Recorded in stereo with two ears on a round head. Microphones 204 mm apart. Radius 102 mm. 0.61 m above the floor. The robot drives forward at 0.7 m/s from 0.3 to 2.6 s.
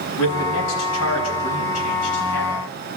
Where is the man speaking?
75° left (ahead or behind), 5.5 m; by 2.5 s 70° left (ahead or behind), 5.5 m.